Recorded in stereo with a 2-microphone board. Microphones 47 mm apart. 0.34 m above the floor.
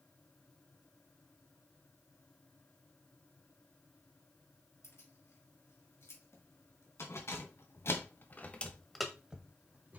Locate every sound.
4.8 s keys jangling: 70° left (ahead or behind), 6 m; by 10.0 s 35° right (ahead or behind), 2.5 m